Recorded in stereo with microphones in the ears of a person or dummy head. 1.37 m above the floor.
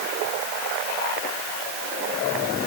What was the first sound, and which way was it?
Only background noise.